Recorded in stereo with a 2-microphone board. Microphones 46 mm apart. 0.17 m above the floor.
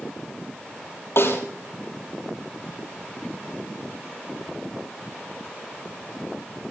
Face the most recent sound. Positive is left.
turn(degrees=65)  # may be behind; listen again after turning